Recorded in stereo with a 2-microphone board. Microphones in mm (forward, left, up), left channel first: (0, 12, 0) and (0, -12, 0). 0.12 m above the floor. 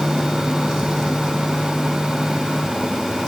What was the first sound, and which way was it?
Only background noise.